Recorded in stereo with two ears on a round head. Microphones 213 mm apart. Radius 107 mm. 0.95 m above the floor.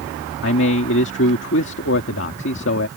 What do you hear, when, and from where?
0.4 s a man speaking: 50° left (ahead or behind)